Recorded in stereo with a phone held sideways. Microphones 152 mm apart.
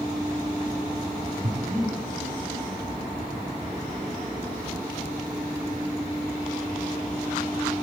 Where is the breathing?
55° right (ahead or behind), 3 m.